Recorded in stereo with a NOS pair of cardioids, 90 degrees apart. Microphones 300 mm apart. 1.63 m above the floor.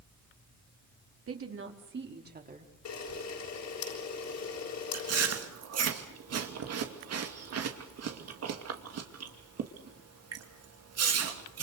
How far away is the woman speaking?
About 4 m.